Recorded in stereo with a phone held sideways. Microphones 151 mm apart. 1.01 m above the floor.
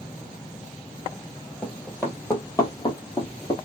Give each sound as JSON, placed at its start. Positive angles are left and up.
{"t": 1.6, "sound": "running footsteps", "side_deg": 5, "distance_m": 1.1}